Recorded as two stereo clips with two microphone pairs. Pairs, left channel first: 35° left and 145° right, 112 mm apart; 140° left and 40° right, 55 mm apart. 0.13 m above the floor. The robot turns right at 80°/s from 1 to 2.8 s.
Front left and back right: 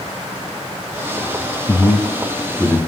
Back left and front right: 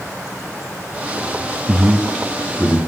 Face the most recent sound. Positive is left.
turn(degrees=115)